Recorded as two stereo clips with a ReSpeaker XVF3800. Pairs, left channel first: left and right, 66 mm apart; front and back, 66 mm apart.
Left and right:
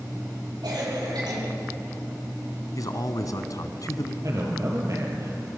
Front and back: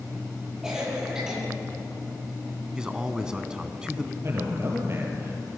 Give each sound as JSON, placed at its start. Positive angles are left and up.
{"t": 0.6, "sound": "a cough", "azimuth_deg": -100, "distance_m": 9.0}
{"t": 2.8, "sound": "a man speaking", "azimuth_deg": 105, "distance_m": 1.9}
{"t": 4.2, "sound": "a man speaking", "azimuth_deg": -130, "distance_m": 5.0}